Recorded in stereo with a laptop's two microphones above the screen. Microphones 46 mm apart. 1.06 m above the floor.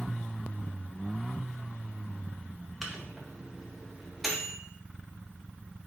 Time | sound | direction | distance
2.8 | a microwave | 5° right (ahead or behind) | 0.7 m